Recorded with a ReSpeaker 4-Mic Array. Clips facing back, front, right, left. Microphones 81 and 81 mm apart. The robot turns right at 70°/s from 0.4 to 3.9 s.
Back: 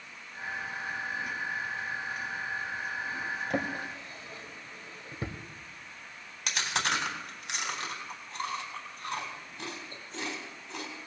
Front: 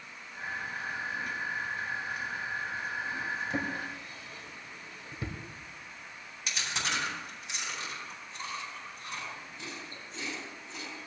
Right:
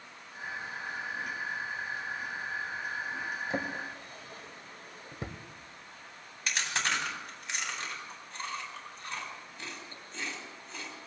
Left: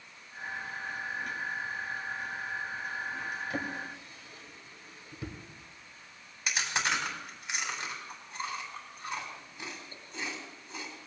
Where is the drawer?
155° right, 1.2 m; by 5.4 s 125° right, 1.2 m.